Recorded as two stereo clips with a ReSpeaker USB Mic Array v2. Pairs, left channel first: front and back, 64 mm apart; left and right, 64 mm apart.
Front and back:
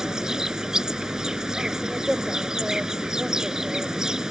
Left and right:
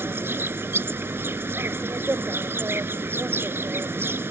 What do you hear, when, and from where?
0.0 s an insect: 105° right